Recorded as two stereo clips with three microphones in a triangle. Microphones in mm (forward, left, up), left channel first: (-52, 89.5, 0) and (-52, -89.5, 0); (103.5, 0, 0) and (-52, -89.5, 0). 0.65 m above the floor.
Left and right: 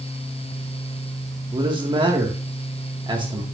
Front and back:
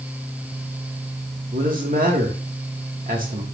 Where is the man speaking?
145° right, 1.6 m.